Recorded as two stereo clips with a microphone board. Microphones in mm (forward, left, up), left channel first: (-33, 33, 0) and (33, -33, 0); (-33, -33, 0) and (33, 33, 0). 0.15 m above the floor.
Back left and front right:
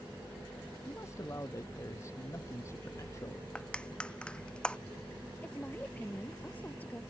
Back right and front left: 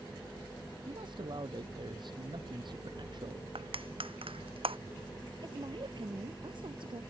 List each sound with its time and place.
0.9 s a man speaking: 75° left
3.5 s crushing: 55° left
5.4 s a woman speaking: 65° left